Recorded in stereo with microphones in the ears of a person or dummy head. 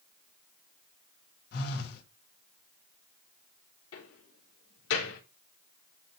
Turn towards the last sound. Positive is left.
turn(degrees=80)